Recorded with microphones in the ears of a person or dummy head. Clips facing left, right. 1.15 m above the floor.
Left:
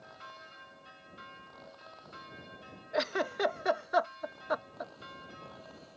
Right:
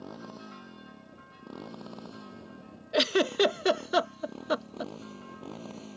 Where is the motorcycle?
65° right (ahead or behind).